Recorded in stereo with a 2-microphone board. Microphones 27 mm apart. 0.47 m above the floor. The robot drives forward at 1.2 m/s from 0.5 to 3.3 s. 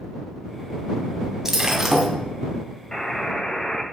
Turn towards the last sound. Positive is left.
turn(degrees=25)  # may be behind; listen again after turning